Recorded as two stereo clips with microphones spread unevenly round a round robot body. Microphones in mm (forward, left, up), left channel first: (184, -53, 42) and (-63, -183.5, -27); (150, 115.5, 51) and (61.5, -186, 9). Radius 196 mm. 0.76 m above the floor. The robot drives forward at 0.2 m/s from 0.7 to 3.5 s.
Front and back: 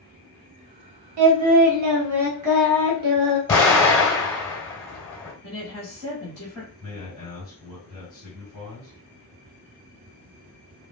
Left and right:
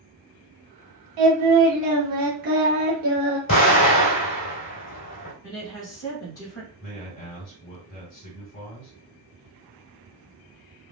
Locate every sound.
1.2 s singing: 140° right, 0.9 m; by 3.4 s 155° right, 1.3 m
3.5 s an explosion: 120° left, 2.5 m
5.4 s a woman speaking: 135° left, 1.5 m
6.8 s a man speaking: 110° left, 2.5 m